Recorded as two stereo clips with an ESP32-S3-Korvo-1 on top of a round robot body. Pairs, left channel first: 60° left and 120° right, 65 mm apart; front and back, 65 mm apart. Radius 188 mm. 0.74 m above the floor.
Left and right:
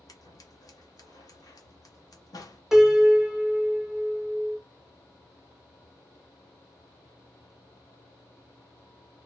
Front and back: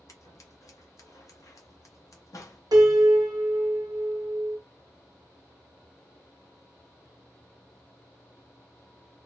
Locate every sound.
0.1 s scissors: 35° left, 1.0 m
2.7 s a piano: 155° left, 0.9 m